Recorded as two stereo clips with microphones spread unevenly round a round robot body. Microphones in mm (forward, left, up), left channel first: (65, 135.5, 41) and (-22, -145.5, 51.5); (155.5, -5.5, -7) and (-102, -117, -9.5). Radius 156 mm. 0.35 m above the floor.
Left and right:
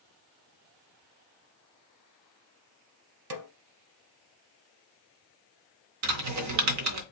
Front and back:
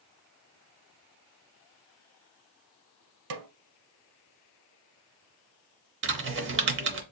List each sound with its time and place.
3.3 s a snare drum: 140° right, 0.6 m
6.0 s typing on a keyboard: 120° right, 0.8 m